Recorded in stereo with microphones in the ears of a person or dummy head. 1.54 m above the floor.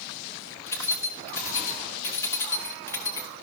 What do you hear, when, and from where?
0.7 s keys jangling: 15° left (ahead or behind), 1.4 m